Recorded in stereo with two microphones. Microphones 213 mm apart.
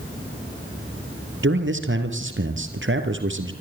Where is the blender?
No blender in this recording.